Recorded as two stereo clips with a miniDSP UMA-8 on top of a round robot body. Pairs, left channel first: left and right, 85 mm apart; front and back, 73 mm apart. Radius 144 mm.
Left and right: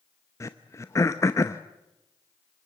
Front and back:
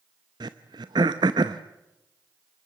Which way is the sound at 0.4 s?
145° left.